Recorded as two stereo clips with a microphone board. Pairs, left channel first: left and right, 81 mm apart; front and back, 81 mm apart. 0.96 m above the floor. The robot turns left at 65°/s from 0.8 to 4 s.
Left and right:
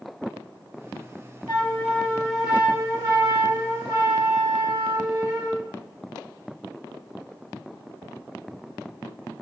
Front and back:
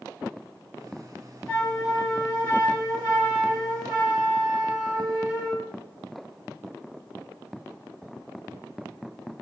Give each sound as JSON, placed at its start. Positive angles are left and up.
{"t": 1.5, "sound": "a flute", "azimuth_deg": 65, "distance_m": 1.5}